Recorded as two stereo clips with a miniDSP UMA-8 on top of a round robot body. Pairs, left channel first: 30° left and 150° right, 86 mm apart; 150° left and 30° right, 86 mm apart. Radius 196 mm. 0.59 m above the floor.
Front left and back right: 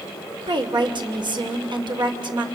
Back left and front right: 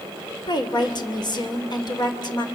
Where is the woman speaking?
175° right, 2.5 m.